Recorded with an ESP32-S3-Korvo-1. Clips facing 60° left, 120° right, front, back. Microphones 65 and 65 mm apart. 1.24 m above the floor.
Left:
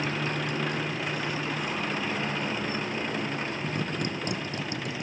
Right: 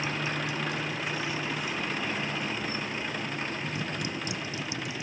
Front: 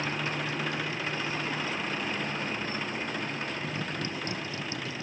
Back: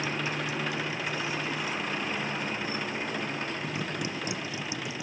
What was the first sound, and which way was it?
A motorcycle, 105° left.